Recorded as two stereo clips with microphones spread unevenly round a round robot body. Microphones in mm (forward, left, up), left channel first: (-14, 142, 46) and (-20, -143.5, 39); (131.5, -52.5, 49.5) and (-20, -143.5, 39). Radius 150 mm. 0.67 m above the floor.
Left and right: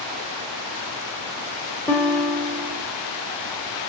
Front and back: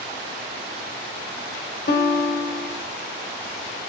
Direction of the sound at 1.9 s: 5° left.